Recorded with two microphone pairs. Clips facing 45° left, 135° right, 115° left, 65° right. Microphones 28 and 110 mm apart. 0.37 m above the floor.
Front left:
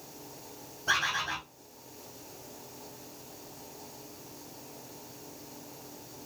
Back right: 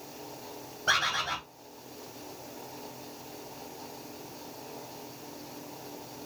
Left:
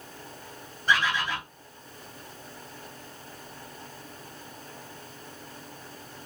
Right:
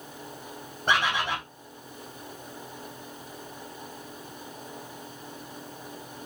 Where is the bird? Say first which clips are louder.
Back right 1 dB, even; 85° right, 3 m.